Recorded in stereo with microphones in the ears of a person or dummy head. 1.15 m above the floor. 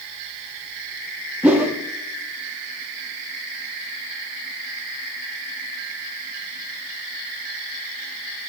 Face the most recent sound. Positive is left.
turn(degrees=-10)  # may be behind; listen again after turning